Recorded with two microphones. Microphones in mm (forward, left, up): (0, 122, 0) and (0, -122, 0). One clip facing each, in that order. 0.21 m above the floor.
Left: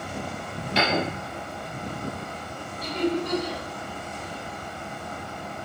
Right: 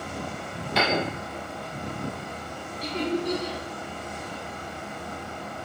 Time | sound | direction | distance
0.8 | a piano | 30° left (ahead or behind) | 0.9 m
2.8 | laughter | 35° right (ahead or behind) | 1.7 m